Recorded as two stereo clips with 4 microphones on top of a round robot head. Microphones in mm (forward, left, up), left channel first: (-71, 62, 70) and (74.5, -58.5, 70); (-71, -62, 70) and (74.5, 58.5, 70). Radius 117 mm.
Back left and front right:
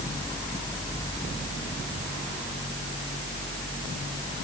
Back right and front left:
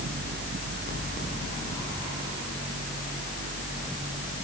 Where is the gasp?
I don't hear a gasp.